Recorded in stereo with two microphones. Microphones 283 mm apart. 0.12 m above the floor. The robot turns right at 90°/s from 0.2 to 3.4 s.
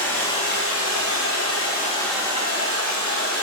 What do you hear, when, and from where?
0.0 s running water: 5° left, 1.9 m; by 3.4 s 65° right, 1.9 m